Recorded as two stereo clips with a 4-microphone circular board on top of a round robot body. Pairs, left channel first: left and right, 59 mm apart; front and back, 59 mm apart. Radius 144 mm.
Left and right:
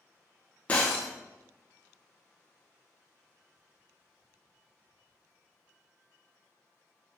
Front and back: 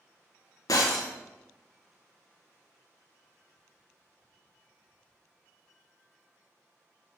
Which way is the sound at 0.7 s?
20° left.